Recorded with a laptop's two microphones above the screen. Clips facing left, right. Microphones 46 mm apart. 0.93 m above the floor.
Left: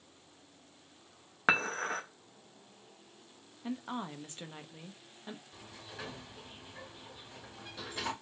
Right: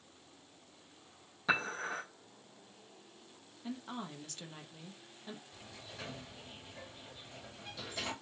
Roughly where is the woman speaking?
Left.